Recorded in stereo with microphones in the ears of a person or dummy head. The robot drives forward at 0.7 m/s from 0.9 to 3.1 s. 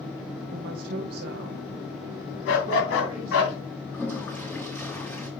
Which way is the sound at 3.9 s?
10° left (ahead or behind).